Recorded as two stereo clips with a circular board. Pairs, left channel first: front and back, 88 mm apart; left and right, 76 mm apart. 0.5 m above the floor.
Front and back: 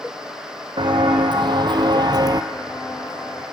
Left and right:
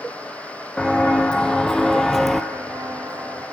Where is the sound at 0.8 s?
165° left, 1.5 m; by 2.4 s straight behind, 0.6 m.